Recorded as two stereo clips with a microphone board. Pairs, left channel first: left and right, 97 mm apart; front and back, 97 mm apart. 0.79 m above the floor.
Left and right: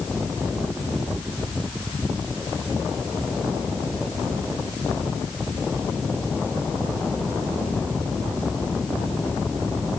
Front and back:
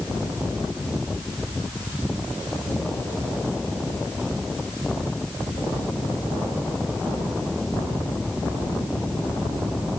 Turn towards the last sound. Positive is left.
No sound to turn to.